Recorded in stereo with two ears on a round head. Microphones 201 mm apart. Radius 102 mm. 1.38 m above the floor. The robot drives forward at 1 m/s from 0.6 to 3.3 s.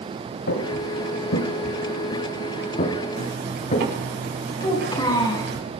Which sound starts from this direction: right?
A zipper, at 3.2 s.